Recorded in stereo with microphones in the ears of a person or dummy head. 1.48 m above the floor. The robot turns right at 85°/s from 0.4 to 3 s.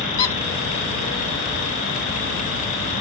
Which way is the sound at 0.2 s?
20° left (ahead or behind).